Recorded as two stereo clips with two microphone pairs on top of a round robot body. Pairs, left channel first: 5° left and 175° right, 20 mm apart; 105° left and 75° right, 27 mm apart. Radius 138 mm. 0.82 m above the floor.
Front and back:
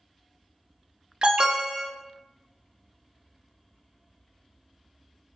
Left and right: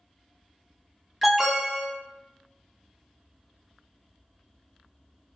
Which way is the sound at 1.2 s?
160° right.